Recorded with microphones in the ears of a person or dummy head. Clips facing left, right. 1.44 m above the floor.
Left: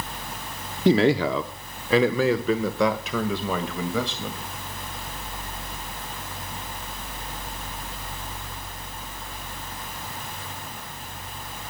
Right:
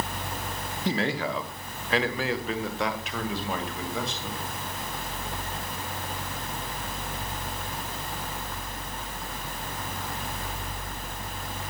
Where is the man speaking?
50° left (ahead or behind), 1.0 m; by 4.4 s 70° left (ahead or behind), 3 m.